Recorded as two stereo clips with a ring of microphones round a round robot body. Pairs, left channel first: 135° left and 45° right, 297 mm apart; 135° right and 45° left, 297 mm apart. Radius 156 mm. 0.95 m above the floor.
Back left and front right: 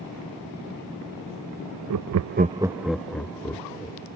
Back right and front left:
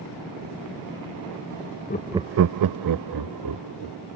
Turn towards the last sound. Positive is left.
turn(degrees=55)